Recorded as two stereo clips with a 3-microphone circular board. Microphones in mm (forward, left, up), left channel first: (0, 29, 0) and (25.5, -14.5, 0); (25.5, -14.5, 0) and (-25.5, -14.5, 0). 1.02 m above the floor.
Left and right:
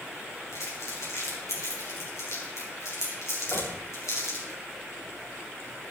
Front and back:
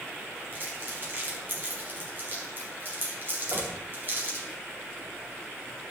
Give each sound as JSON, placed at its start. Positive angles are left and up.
{"t": 0.5, "sound": "crumpling", "azimuth_deg": 135, "distance_m": 5.5}
{"t": 3.5, "sound": "knocking", "azimuth_deg": 180, "distance_m": 6.0}